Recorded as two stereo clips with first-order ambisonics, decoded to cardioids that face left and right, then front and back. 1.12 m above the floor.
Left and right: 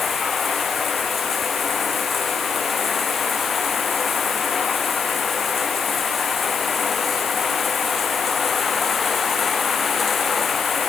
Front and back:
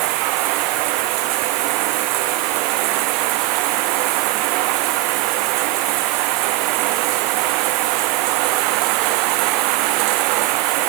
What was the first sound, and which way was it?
Running water, 160° left.